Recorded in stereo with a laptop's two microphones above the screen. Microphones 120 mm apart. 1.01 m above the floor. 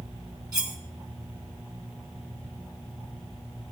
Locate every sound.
0.5 s cutlery clinking: 35° right (ahead or behind), 1.6 m